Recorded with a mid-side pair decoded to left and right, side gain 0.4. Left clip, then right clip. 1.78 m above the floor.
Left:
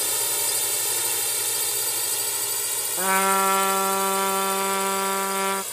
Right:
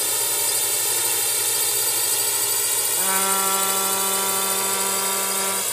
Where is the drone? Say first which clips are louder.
Right 2 dB; 15° right; by 5.7 s 55° right.